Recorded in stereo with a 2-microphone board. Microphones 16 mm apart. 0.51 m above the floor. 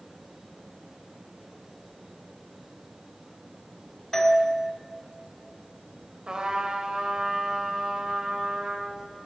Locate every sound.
4.1 s a doorbell: 20° left (ahead or behind), 1.6 m
6.3 s a trumpet: 70° right (ahead or behind), 1.8 m